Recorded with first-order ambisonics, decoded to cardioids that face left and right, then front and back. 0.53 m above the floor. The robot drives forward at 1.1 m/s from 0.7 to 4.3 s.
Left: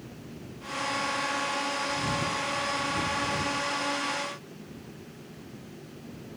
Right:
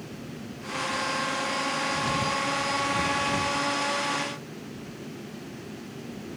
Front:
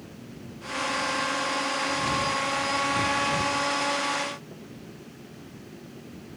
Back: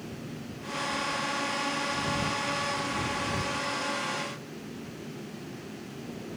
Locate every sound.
Only background noise.